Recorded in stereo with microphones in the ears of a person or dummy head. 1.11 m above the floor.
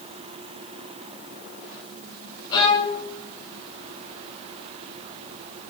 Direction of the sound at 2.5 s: 25° left (ahead or behind).